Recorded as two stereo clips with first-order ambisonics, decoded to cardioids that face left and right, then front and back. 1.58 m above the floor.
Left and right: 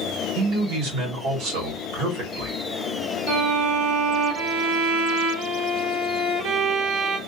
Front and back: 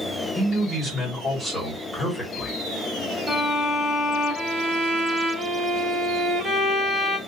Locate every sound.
0.3 s a man speaking: 75° right, 1.6 m
3.3 s a violin: 75° right, 1.4 m